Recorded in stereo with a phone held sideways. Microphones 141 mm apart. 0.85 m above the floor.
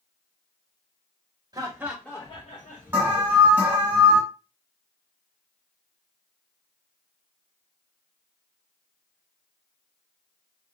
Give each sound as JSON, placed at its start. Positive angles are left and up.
{"t": 1.5, "sound": "laughter", "side_deg": -30, "distance_m": 0.9}
{"t": 2.9, "sound": "an alarm", "side_deg": -15, "distance_m": 1.3}